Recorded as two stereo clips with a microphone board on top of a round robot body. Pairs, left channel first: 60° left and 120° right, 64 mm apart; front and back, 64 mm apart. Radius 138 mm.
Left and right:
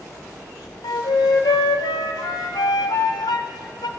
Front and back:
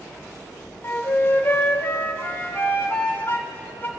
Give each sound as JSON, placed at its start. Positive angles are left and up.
{"t": 0.8, "sound": "a flute", "azimuth_deg": 60, "distance_m": 0.7}